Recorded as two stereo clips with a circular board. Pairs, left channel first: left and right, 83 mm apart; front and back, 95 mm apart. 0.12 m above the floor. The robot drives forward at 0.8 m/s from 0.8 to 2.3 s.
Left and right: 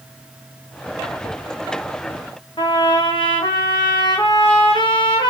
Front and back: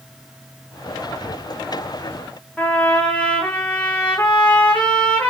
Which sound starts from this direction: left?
A trumpet, at 2.6 s.